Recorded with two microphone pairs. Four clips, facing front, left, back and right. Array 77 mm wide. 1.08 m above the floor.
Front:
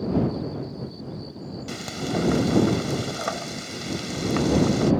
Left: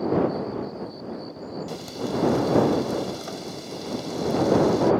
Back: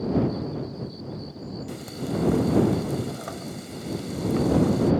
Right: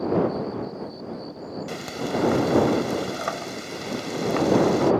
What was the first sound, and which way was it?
Frying, 55° right.